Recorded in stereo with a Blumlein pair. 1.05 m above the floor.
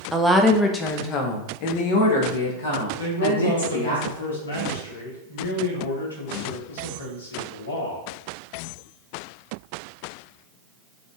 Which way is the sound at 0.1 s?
10° right.